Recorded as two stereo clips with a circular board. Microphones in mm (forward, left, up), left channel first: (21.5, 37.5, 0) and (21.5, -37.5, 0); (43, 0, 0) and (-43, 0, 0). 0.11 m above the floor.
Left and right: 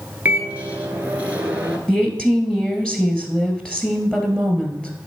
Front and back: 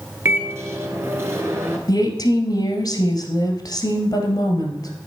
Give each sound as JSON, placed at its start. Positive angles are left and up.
{"t": 0.2, "sound": "a microwave", "azimuth_deg": -145, "distance_m": 1.1}
{"t": 1.9, "sound": "a woman speaking", "azimuth_deg": 15, "distance_m": 1.6}